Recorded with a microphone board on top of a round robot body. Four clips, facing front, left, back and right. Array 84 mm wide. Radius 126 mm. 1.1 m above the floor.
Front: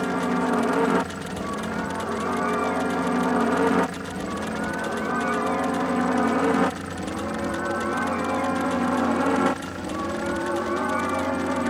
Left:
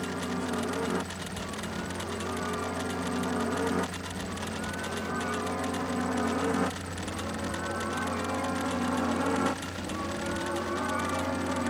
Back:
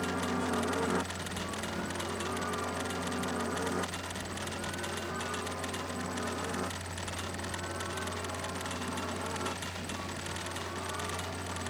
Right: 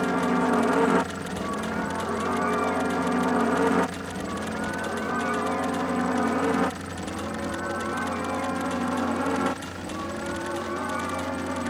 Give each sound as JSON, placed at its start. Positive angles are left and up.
{"t": 0.0, "sound": "a helicopter", "azimuth_deg": -55}